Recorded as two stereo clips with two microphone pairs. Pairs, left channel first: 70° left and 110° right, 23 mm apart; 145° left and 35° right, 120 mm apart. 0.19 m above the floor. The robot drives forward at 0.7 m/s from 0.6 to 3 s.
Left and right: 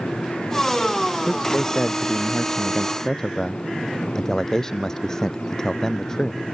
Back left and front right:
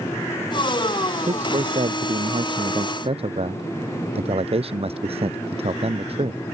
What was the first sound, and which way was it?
A man speaking, straight ahead.